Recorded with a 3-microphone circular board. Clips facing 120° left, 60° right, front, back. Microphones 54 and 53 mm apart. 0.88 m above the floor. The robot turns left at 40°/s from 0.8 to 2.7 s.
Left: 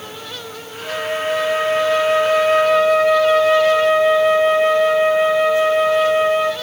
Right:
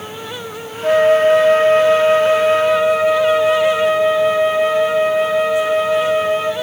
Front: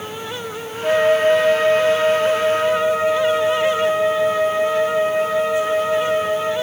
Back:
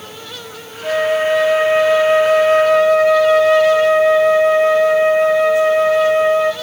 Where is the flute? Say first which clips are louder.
Right 11 dB, front 1 dB; 75° right, 1.2 m; by 6.5 s 150° right, 1.2 m.